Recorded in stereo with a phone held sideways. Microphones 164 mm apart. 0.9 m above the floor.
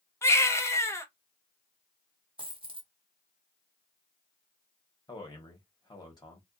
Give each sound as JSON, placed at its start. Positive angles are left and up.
{"t": 0.2, "sound": "a baby crying", "side_deg": 15, "distance_m": 0.5}
{"t": 2.4, "sound": "a dropped coin", "side_deg": -30, "distance_m": 0.6}
{"t": 5.1, "sound": "a man speaking", "side_deg": 25, "distance_m": 1.0}